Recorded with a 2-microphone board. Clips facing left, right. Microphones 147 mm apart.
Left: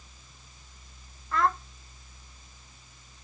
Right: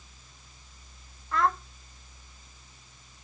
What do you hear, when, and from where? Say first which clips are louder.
1.3 s a child speaking: even; centre (ahead or behind), 0.6 m